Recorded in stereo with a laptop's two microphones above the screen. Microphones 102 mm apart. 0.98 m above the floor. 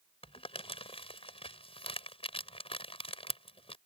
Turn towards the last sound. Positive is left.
turn(degrees=70)  # may be behind; listen again after turning